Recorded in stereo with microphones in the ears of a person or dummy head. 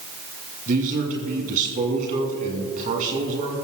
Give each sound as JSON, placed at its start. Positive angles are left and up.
{"t": 0.7, "sound": "a man speaking", "side_deg": -40, "distance_m": 2.5}